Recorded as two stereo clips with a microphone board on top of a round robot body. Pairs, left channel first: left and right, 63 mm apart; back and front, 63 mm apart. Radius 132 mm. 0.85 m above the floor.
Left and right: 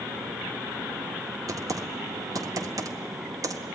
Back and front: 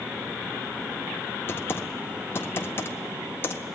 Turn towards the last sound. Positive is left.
turn(degrees=-125)